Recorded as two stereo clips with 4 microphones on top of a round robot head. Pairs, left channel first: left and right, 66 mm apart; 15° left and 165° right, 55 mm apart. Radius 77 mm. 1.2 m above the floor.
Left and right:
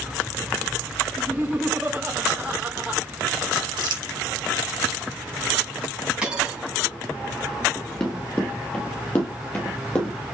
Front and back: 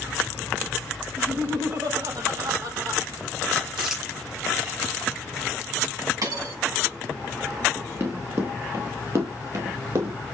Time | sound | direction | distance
1.2 | laughter | 160° right | 5 m
3.8 | crumpling | 85° right | 3 m
6.2 | a dropped coin | 170° right | 5 m
7.8 | running footsteps | 165° left | 1.4 m